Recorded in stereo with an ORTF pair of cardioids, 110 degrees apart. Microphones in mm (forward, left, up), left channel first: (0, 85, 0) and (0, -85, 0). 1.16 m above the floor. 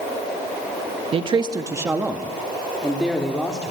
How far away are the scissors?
I don't hear scissors.